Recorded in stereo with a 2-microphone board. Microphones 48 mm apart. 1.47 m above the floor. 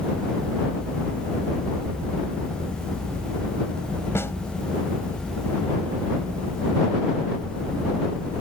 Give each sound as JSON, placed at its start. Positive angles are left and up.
{"t": 4.2, "sound": "a snare drum", "side_deg": 60}